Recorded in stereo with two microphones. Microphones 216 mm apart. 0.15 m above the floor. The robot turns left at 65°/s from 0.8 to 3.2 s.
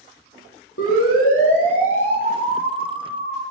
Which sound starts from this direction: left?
A siren, at 0.8 s.